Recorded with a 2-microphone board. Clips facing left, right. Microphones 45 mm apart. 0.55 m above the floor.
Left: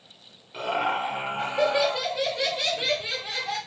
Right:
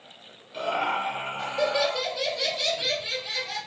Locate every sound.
0.5 s laughter: 15° left (ahead or behind), 2.5 m; by 3.6 s 45° left (ahead or behind), 1.6 m